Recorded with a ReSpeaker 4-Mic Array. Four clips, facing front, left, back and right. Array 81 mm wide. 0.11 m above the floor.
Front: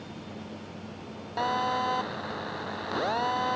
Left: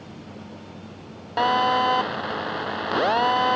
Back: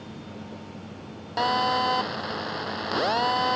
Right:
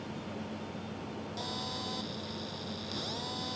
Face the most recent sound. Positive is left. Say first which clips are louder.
# left 24 dB, back 4 dB
turn(degrees=105)